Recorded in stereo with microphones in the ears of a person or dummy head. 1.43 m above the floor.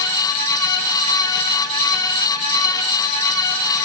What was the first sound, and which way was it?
Only background noise.